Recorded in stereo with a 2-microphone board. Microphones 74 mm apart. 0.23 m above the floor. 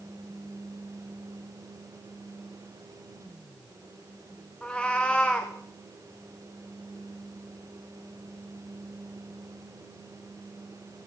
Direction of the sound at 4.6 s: 15° left (ahead or behind).